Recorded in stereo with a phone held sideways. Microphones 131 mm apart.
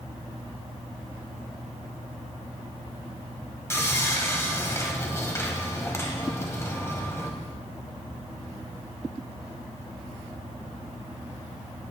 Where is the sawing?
20° left (ahead or behind), 1.7 m.